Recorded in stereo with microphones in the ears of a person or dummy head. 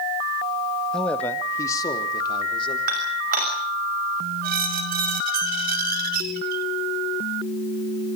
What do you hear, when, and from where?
0.9 s a man speaking: centre (ahead or behind), 1.9 m; by 2.8 s 30° left (ahead or behind), 4 m
2.9 s dishes clattering: 45° right (ahead or behind), 6 m
4.4 s a squeak: 50° right (ahead or behind), 1.0 m